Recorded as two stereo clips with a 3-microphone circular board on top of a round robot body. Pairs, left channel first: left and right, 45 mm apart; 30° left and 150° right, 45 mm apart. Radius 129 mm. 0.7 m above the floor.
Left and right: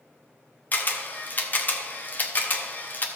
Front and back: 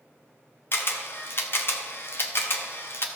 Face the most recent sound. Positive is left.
turn(degrees=50)